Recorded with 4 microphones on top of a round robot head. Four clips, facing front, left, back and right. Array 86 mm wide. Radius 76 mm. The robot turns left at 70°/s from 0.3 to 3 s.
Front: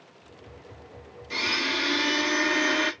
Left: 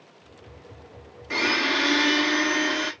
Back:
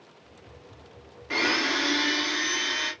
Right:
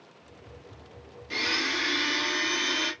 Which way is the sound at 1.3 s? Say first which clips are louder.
Left 6 dB, back 3 dB; 140° left.